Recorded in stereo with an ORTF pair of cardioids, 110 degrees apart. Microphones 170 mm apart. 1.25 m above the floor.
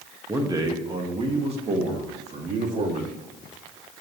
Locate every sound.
0.3 s a man speaking: 20° right, 1.6 m; by 3.2 s 50° right, 3 m